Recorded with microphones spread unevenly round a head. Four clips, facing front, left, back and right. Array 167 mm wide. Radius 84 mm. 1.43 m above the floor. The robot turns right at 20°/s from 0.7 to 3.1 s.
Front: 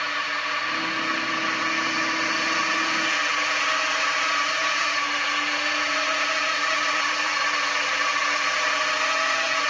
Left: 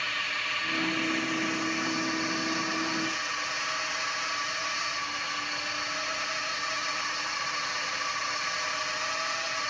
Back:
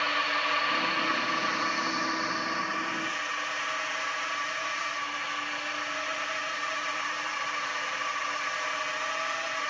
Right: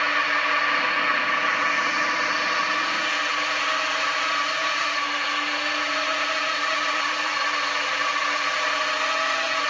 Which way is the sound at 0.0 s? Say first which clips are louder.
Right 11 dB, front 1 dB; 95° right.